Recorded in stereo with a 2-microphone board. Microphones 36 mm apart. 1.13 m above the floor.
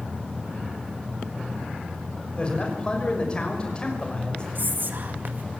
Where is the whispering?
60° right (ahead or behind), 2 m.